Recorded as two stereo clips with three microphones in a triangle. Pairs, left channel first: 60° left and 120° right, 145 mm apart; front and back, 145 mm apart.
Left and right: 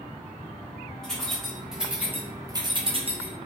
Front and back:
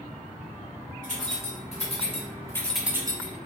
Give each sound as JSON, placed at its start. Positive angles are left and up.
{"t": 1.0, "sound": "keys jangling", "azimuth_deg": -25, "distance_m": 1.7}